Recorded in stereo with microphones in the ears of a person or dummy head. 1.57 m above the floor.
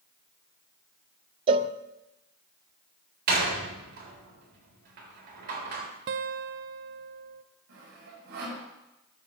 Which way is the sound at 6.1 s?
50° right (ahead or behind).